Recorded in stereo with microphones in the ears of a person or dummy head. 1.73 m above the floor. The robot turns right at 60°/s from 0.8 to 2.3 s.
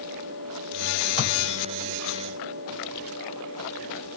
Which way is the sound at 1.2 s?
50° right (ahead or behind).